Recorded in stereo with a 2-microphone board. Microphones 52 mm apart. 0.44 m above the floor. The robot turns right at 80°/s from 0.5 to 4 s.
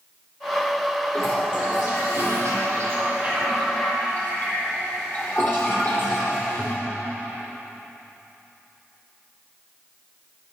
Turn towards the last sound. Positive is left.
turn(degrees=40)